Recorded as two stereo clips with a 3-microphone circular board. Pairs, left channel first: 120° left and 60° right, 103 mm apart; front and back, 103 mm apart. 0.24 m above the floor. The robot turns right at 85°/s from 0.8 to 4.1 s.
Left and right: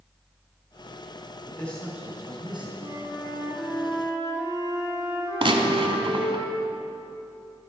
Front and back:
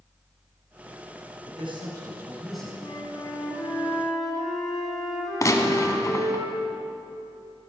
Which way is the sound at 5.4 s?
50° right.